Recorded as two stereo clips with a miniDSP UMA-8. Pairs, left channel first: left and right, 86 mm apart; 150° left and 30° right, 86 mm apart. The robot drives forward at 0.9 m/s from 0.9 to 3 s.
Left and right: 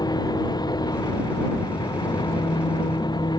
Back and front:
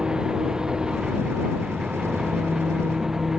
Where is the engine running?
50° left; by 3.4 s 55° left.